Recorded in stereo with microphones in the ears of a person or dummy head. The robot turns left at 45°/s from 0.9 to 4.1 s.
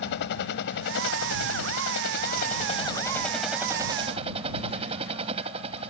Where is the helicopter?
65° left (ahead or behind); by 5.9 s 35° right (ahead or behind).